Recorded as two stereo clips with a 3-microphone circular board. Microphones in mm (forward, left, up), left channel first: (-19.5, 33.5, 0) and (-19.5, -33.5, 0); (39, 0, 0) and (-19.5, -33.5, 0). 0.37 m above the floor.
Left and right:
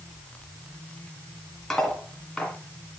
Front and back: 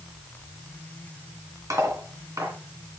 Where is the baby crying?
I don't hear a baby crying.